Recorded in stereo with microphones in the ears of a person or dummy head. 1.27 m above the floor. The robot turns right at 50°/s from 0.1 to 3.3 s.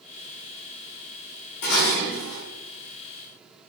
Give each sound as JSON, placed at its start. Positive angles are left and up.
{"t": 1.6, "sound": "dishes clattering", "azimuth_deg": 100, "distance_m": 1.1}